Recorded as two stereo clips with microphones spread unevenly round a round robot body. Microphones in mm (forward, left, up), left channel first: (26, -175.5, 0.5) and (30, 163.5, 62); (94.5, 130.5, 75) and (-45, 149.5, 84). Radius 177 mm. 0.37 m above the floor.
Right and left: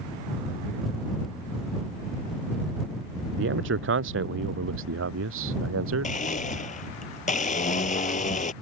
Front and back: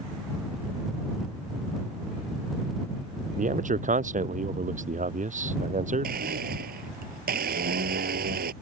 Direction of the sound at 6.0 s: 160° right.